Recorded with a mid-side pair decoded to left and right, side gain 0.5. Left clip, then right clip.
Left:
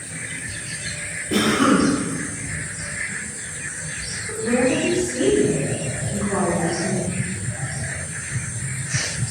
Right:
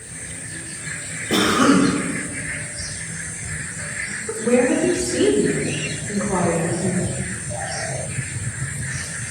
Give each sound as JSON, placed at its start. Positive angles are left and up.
{"t": 1.3, "sound": "a cough", "azimuth_deg": -60, "distance_m": 1.0}
{"t": 4.3, "sound": "a woman speaking", "azimuth_deg": -70, "distance_m": 1.0}